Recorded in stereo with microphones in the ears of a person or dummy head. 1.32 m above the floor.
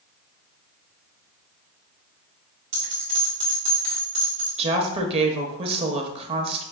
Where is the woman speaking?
35° right (ahead or behind), 0.7 m.